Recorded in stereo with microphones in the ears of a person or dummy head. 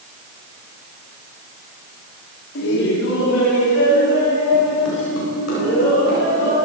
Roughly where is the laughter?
Left.